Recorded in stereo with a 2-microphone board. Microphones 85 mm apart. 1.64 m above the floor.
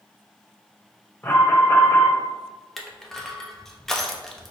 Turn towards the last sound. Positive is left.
turn(degrees=5)  # may be behind; listen again after turning